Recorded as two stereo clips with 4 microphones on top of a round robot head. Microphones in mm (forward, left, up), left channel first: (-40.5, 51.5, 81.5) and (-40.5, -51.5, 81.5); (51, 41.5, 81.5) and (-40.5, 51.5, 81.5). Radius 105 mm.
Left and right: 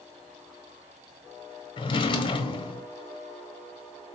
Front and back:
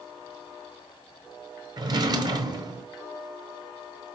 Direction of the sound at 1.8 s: 130° left.